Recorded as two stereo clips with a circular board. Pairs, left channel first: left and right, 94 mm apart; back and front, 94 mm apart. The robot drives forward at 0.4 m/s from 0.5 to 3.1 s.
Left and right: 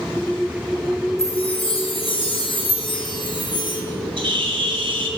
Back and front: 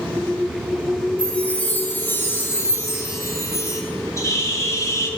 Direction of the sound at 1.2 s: 105° left.